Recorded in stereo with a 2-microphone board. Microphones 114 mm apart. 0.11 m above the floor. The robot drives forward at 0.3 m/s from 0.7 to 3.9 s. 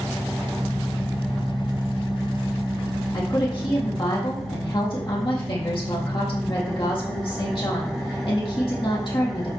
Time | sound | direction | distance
0.0 | an engine running | 5° left (ahead or behind) | 1.1 m
3.1 | a woman speaking | 45° left (ahead or behind) | 4 m